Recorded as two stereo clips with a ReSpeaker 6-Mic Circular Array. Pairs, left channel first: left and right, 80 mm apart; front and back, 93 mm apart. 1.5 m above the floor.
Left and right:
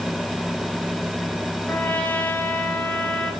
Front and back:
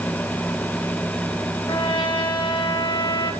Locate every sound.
1.7 s a trumpet: 20° left, 6.5 m